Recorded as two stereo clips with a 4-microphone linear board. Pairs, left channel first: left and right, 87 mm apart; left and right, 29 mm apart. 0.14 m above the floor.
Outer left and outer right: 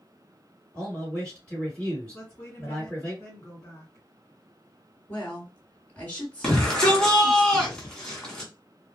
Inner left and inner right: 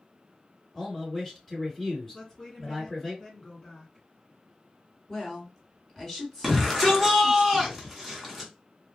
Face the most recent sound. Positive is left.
turn(degrees=10)  # may be behind; listen again after turning